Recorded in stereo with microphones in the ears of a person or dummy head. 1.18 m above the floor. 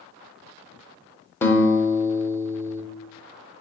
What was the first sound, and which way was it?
A guitar, 10° left (ahead or behind).